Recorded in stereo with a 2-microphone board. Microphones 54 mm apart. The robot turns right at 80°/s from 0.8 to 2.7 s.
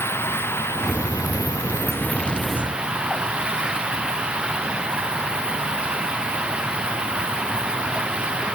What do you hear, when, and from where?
0.0 s running water: 45° left; by 8.6 s 165° right